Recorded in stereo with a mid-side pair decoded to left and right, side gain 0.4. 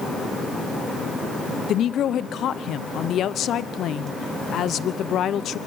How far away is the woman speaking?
About 1.0 m.